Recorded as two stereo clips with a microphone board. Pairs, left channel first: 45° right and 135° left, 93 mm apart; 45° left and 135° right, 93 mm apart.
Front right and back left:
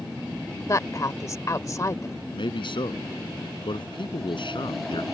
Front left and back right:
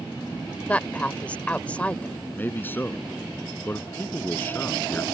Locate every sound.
0.7 s a woman speaking: 20° right
2.3 s a man speaking: 25° right